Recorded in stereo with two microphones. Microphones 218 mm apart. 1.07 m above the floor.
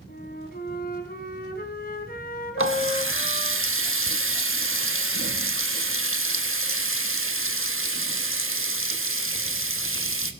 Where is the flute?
45° left (ahead or behind), 2 m.